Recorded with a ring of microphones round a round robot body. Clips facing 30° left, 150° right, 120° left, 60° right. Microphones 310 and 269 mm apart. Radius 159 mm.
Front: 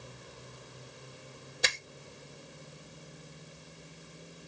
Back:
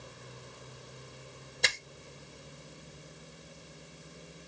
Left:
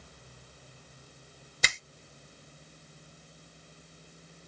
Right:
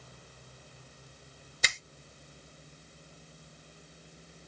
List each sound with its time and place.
1.6 s a finger snap: 115° left, 0.8 m